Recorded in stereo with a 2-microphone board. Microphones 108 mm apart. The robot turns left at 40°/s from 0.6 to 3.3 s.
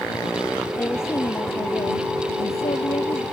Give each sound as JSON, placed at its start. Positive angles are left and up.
{"t": 0.8, "sound": "a woman speaking", "azimuth_deg": 165}